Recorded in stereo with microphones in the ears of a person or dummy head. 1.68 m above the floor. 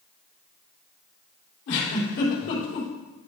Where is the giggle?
65° left (ahead or behind), 3 m.